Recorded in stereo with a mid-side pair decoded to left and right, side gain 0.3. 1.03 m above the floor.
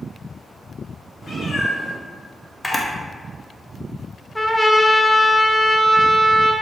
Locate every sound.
1.2 s a cat meowing: 55° left, 1.8 m
2.6 s a camera shutter: 20° left, 0.9 m
4.3 s a trumpet: 5° left, 0.5 m